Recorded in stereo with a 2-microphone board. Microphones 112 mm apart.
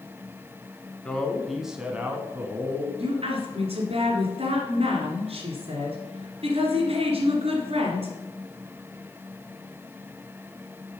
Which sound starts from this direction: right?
A woman speaking, at 3.0 s.